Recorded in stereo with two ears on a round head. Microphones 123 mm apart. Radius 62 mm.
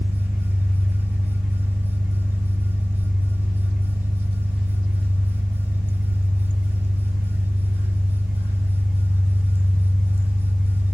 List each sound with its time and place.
0.0 s an engine running: 10° right (ahead or behind), 0.9 m